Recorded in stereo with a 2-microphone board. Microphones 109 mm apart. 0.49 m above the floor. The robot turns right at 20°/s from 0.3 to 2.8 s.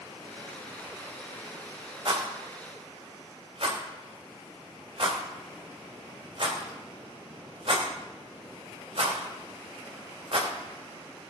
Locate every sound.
2.0 s a rattle: 60° right (ahead or behind), 3 m; by 10.5 s 65° right (ahead or behind), 3 m